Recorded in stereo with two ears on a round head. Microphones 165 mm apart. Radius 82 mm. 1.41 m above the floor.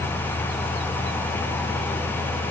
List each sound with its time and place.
Only background noise.